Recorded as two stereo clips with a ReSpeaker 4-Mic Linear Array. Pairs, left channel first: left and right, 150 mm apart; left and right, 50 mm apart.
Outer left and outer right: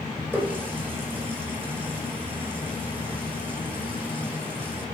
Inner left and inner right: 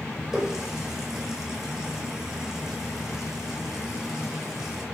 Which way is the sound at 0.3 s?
10° right (ahead or behind).